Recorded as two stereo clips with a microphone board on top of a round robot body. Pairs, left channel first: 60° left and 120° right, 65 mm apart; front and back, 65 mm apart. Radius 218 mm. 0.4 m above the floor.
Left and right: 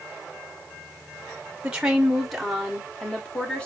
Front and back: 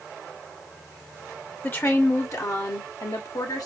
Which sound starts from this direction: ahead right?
A woman speaking, at 1.6 s.